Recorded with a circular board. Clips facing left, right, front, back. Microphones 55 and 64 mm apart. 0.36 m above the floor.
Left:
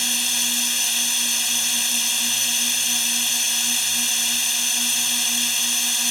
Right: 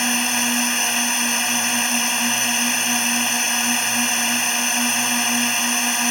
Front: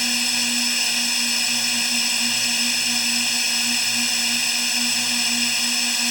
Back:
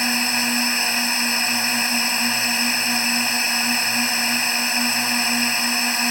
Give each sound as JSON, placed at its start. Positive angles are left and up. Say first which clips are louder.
{"t": 0.0, "sound": "a drone", "louder": "right 6 dB, back 4 dB", "azimuth_deg": -130}